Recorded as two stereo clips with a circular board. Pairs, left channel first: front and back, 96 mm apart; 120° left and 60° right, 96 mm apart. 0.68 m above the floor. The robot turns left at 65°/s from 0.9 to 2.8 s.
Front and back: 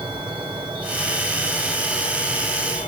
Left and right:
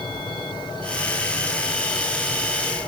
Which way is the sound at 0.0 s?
145° left.